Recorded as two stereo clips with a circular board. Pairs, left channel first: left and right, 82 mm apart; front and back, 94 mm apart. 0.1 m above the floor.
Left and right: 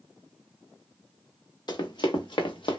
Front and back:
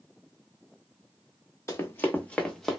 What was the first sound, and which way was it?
Running footsteps, 60° left.